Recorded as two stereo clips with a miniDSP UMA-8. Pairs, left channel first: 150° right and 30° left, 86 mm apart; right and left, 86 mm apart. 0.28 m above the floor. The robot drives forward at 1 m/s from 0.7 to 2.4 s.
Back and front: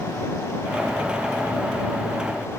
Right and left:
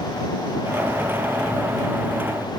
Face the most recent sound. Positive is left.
No sound to turn to.